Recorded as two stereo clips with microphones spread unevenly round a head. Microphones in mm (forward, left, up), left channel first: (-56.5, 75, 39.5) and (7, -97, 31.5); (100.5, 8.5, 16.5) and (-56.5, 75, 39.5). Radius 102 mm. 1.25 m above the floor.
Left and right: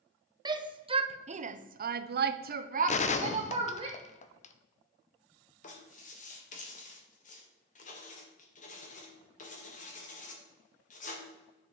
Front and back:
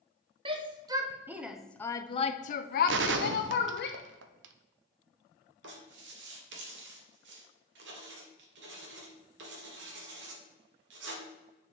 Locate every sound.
0.5 s a shout: 135° right, 1.1 m; by 3.9 s 5° right, 1.1 m
2.9 s a gunshot: 160° left, 0.8 m
5.6 s writing: 155° left, 2 m